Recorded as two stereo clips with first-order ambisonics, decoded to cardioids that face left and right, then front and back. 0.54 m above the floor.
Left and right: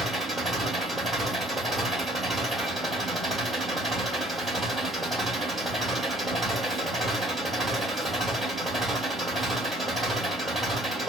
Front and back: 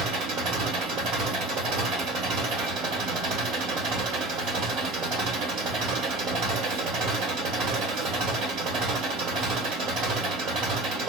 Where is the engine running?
165° right, 1.4 m.